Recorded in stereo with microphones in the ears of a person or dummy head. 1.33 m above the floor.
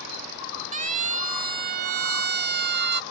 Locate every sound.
0.7 s a siren: 40° right (ahead or behind); by 3.0 s 60° right (ahead or behind)